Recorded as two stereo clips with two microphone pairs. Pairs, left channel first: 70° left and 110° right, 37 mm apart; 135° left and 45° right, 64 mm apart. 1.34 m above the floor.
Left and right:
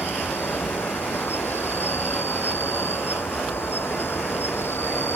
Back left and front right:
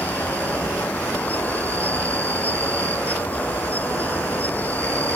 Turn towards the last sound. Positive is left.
turn(degrees=70)